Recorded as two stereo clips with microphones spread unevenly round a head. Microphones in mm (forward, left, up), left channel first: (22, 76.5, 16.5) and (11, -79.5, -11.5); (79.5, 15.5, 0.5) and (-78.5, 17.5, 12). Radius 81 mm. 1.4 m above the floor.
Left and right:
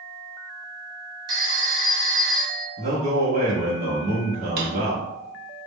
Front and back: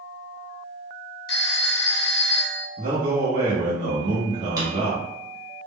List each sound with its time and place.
1.3 s a phone ringing: 25° right, 0.6 m
2.8 s a man speaking: 125° right, 0.7 m
4.6 s a drawer: 120° right, 0.7 m